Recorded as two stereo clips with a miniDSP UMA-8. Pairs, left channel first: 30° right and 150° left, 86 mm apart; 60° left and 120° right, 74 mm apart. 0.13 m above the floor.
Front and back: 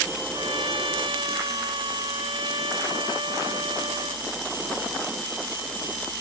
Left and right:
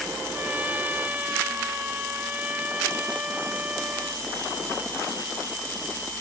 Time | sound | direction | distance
0.3 | a trumpet | 170° left | ?